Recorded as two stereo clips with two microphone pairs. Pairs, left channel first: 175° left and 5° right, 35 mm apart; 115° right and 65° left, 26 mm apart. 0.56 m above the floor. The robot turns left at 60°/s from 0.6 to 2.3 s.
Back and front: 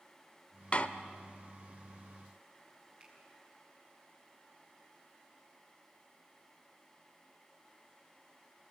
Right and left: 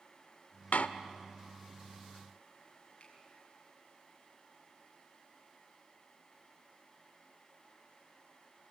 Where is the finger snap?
60° right, 6 m.